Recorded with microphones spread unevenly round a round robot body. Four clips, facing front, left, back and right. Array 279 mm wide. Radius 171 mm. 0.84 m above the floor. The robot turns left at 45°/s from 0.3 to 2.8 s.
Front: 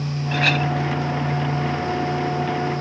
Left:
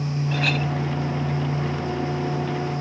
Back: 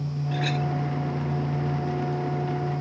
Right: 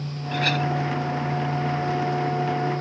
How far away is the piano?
I don't hear a piano.